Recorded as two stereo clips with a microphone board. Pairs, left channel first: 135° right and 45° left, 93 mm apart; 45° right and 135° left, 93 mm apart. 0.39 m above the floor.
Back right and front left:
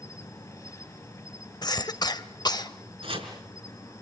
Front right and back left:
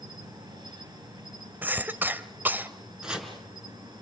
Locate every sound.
0.0 s an insect: 170° left, 6.5 m
1.6 s a cough: 160° right, 1.4 m
3.0 s chopping: 55° left, 4.5 m